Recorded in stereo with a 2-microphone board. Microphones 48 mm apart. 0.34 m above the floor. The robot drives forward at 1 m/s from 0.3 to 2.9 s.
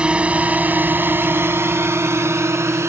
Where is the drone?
20° right (ahead or behind); by 2.9 s 70° right (ahead or behind).